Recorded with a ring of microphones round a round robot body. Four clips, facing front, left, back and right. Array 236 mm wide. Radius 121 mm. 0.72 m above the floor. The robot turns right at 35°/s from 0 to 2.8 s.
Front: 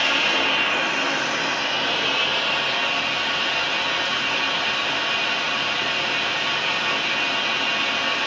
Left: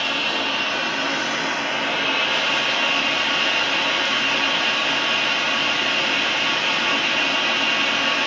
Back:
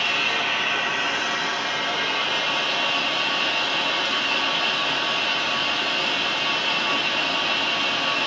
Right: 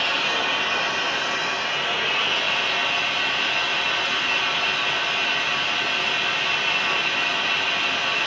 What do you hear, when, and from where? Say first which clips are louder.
0.0 s running water: even, front 3 dB; straight ahead, 0.8 m; by 8.3 s 100° left, 0.8 m